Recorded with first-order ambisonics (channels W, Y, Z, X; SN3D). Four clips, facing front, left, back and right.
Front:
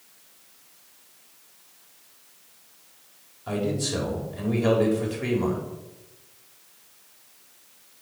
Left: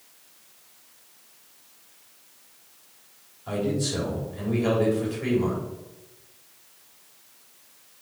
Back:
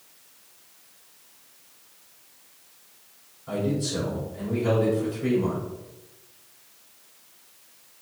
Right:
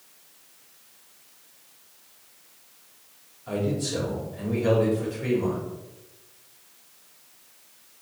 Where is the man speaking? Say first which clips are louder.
Left 1 dB, even; 15° left, 3.5 m.